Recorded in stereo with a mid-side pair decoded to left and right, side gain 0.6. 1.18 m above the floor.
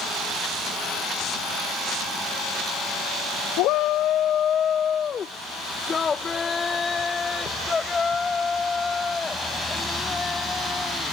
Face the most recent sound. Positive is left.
turn(degrees=15)